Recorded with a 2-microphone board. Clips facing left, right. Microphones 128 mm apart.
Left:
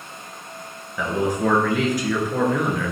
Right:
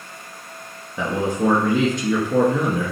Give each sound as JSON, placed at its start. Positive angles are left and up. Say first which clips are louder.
{"t": 1.0, "sound": "a man speaking", "louder": "right 1 dB", "side_deg": -25, "distance_m": 1.9}